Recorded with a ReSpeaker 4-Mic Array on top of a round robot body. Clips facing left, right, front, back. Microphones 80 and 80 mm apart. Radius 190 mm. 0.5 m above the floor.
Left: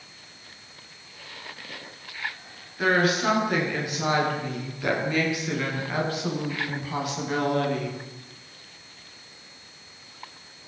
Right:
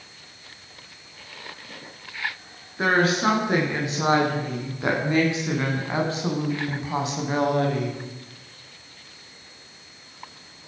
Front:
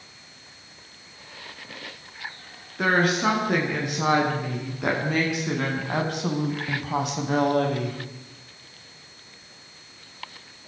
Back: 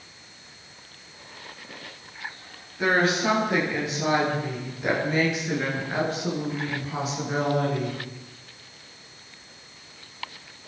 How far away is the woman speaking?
About 9 m.